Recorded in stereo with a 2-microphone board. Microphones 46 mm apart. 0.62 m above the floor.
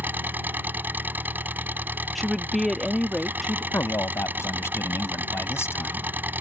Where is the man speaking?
80° left.